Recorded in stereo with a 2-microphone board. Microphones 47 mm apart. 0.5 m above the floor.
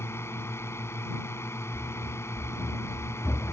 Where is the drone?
60° left (ahead or behind); by 3.5 s 70° left (ahead or behind).